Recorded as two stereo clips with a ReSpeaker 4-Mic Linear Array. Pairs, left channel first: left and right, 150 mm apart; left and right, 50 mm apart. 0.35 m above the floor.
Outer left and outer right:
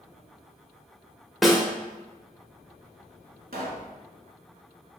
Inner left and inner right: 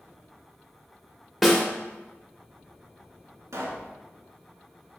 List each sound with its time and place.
1.4 s a snare drum: centre (ahead or behind), 0.8 m
3.5 s a pop: 85° right, 0.8 m